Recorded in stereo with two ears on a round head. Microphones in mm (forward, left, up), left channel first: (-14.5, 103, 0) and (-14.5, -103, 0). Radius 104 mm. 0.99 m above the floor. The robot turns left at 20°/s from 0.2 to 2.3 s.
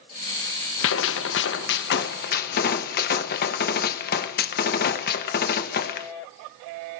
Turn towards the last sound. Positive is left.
turn(degrees=40)  # may be behind; listen again after turning